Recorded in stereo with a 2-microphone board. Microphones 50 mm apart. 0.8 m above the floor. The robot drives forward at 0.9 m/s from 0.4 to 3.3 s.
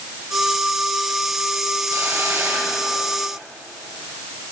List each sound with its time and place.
1.9 s a hiss: 70° right (ahead or behind), 6 m; by 3.4 s 60° right (ahead or behind), 6.5 m